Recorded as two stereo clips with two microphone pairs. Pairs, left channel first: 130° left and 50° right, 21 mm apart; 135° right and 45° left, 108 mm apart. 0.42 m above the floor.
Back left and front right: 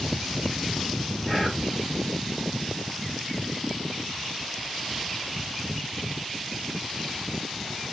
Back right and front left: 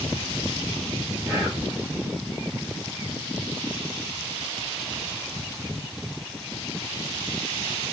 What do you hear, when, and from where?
1.3 s whispering: straight ahead, 1.5 m